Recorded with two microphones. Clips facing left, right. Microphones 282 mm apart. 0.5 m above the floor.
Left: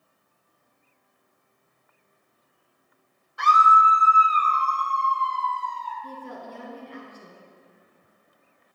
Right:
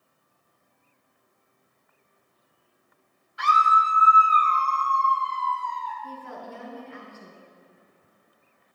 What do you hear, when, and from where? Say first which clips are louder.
3.4 s a scream: left 3 dB; 55° left (ahead or behind), 1.5 m; by 5.9 s 35° left (ahead or behind), 4.5 m
6.0 s a woman speaking: left 3 dB; 40° left (ahead or behind), 6 m